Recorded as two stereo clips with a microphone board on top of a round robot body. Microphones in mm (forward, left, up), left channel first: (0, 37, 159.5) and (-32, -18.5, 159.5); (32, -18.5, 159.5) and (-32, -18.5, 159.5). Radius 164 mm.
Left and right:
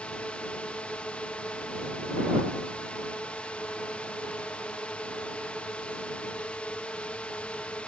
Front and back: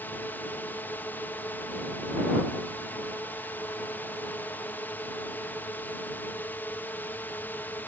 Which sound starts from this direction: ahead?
A drone, at 0.0 s.